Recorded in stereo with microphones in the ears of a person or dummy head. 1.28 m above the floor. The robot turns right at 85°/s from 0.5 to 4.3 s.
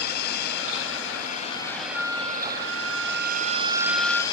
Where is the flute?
165° left; by 4.2 s straight ahead.